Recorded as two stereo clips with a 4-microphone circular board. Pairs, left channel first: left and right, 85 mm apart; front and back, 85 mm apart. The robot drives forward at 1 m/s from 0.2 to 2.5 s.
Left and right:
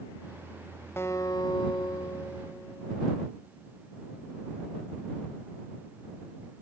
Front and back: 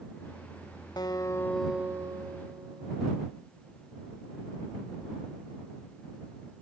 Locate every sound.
1.0 s a guitar: 30° left, 0.8 m; by 3.2 s 155° left, 1.0 m